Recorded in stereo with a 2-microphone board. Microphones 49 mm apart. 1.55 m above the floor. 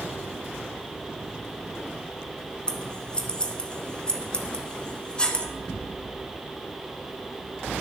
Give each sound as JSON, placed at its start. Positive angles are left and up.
{"t": 2.7, "sound": "scissors", "side_deg": 20, "distance_m": 0.6}